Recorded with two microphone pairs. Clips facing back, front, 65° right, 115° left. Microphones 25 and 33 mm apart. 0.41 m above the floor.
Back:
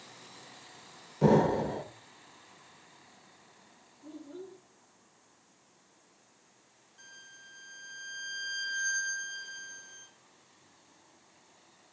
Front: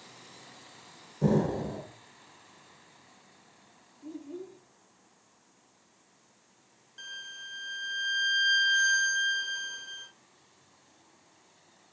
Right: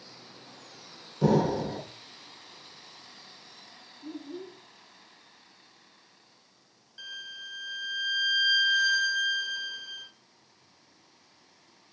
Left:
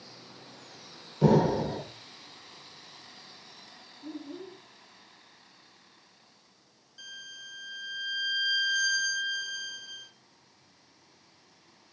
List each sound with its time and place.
1.2 s an explosion: straight behind, 0.8 m
4.0 s a child speaking: 15° left, 4.5 m
7.0 s a violin: 5° left, 0.6 m